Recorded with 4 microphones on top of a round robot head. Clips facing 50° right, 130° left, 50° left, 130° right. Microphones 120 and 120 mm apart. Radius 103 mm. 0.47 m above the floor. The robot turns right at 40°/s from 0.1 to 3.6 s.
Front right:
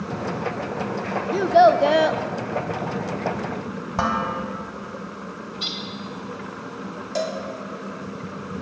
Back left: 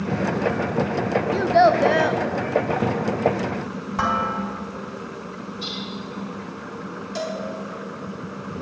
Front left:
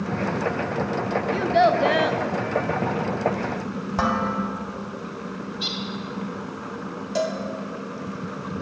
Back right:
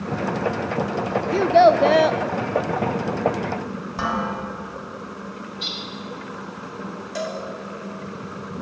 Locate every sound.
1.3 s a child speaking: 130° right, 0.5 m; by 2.2 s 95° right, 0.5 m
4.0 s dishes clattering: 10° left, 2.5 m
5.5 s a bird: 35° right, 3 m
7.2 s a cowbell: 10° right, 2.5 m